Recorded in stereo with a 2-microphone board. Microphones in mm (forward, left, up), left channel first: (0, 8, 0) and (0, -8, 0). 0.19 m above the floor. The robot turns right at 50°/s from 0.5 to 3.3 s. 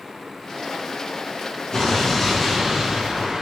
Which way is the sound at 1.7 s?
145° left.